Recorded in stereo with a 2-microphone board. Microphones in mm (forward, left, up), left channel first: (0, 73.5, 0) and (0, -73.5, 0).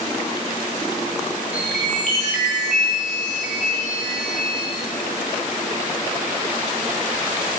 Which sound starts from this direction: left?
A chime, at 1.5 s.